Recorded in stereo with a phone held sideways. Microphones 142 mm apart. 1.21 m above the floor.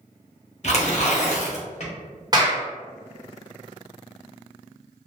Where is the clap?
30° right (ahead or behind), 1.1 m.